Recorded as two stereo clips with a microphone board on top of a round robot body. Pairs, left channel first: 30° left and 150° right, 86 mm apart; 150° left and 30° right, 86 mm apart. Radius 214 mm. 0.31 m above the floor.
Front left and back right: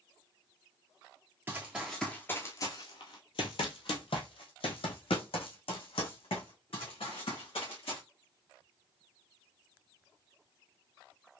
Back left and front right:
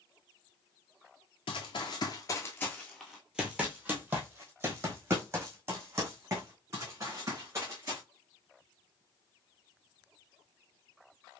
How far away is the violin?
No violin in this recording.